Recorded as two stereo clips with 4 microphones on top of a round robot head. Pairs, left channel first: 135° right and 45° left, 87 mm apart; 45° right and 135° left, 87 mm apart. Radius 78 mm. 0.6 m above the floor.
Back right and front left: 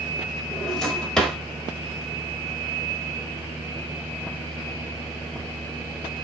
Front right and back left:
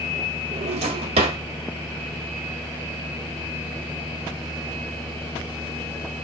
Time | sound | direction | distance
0.5 | a drawer | 140° left | 1.1 m